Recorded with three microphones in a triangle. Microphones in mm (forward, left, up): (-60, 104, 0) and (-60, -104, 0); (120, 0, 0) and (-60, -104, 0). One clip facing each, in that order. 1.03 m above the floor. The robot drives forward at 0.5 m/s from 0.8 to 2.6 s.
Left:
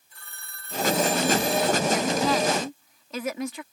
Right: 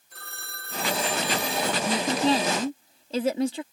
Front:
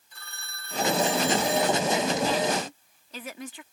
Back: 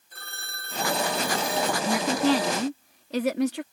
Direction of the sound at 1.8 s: 145° right.